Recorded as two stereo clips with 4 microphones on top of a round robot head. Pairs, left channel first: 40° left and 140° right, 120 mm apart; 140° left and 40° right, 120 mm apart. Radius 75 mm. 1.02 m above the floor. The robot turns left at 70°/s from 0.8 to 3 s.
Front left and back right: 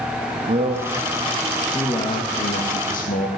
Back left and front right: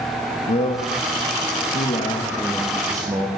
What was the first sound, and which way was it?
A man speaking, straight behind.